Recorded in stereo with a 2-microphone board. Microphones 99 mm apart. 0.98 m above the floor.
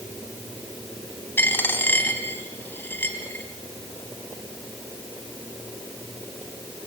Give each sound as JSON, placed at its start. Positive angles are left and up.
{"t": 1.4, "sound": "a dropped coin", "side_deg": 20, "distance_m": 2.0}